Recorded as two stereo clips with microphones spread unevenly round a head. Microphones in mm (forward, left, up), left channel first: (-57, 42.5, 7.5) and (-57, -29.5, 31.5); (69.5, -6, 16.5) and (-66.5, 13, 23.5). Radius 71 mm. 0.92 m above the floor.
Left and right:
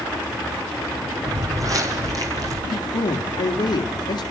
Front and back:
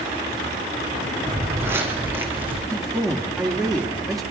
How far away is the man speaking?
About 2.0 m.